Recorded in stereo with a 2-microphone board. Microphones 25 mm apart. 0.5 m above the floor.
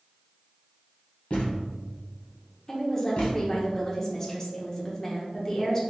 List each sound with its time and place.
1.3 s a thud: 55° left (ahead or behind), 1.5 m
2.7 s a woman speaking: 15° left (ahead or behind), 1.0 m